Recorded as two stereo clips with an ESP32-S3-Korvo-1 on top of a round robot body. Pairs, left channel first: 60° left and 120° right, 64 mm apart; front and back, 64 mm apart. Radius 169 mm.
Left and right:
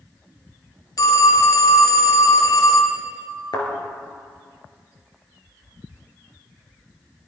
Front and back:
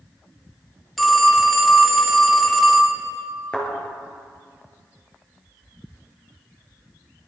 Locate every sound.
1.0 s a phone ringing: 90° left, 1.7 m
3.5 s a thud: 75° left, 3.5 m